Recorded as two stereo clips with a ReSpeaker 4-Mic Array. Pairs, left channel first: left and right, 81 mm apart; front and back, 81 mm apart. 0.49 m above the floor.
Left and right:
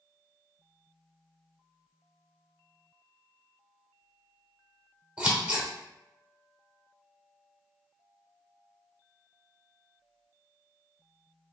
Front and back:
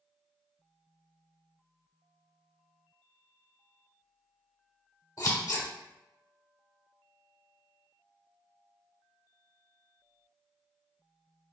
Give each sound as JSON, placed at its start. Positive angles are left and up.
{"t": 5.2, "sound": "scissors", "azimuth_deg": -20, "distance_m": 0.9}